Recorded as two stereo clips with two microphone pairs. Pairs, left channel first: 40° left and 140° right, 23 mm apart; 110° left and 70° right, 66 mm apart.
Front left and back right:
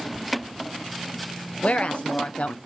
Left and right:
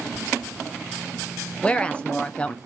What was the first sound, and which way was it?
A woman speaking, 40° left.